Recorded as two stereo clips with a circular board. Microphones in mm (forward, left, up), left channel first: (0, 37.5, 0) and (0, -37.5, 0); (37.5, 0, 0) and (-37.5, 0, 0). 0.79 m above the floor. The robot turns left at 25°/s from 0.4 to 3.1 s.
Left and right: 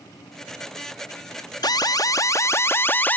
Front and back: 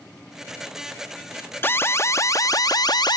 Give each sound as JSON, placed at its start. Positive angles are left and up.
{"t": 1.6, "sound": "an alarm", "azimuth_deg": 60}